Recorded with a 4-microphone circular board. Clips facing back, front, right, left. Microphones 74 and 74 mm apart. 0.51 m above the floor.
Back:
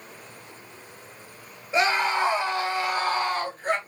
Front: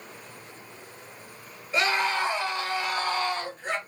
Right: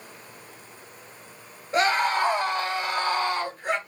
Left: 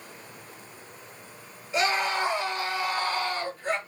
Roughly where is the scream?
Behind right.